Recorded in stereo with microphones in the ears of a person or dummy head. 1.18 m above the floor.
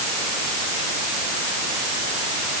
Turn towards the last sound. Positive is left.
No sound to turn to.